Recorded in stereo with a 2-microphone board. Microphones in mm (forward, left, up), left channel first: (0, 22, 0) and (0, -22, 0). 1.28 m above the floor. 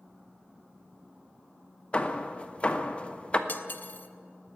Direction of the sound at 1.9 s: 25° left (ahead or behind).